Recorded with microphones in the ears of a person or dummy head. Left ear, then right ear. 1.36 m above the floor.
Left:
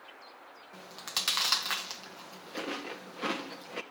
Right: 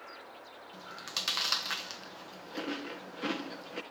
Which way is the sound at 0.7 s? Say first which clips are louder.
Left 2 dB; 25° left (ahead or behind).